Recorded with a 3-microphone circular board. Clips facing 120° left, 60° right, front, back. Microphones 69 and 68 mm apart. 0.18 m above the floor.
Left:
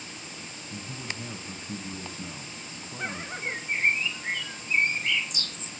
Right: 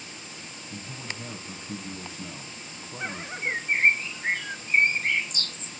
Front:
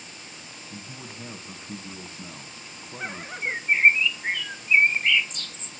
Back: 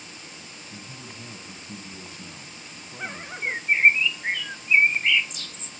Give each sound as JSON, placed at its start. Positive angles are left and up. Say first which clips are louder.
{"t": 0.7, "sound": "a man speaking", "louder": "left 1 dB, front 2 dB", "azimuth_deg": 30, "distance_m": 1.5}
{"t": 3.4, "sound": "a bird", "louder": "right 4 dB, even", "azimuth_deg": -95, "distance_m": 1.0}